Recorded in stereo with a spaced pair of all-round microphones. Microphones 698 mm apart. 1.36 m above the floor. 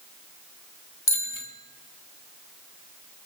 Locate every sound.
1.1 s a bicycle bell: 40° left (ahead or behind), 2 m